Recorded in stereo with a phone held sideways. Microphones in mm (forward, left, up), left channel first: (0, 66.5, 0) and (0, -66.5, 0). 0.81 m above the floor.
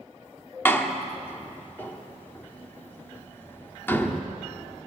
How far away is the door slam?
About 1.5 m.